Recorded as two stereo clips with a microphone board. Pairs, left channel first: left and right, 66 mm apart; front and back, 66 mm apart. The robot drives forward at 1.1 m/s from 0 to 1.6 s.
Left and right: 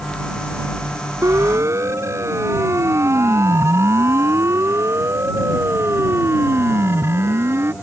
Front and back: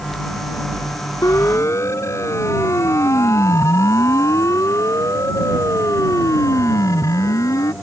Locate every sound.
1.2 s a siren: 45° right; by 7.7 s 40° right